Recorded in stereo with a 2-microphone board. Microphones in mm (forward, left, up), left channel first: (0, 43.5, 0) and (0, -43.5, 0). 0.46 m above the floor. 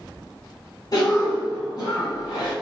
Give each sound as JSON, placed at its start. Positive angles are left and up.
{"t": 0.9, "sound": "a cough", "side_deg": 45, "distance_m": 1.0}